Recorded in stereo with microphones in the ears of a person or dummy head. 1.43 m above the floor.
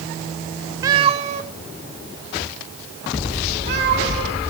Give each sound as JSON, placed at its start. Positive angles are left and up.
{"t": 0.8, "sound": "a cat meowing", "side_deg": -20, "distance_m": 0.6}